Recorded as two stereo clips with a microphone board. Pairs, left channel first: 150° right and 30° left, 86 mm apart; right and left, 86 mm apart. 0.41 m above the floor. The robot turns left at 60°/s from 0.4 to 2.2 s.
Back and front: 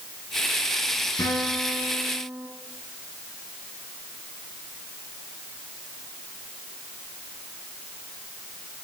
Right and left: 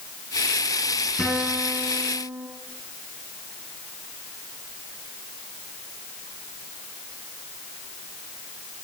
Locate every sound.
1.2 s a guitar: 175° left, 2 m; by 2.5 s 115° left, 2 m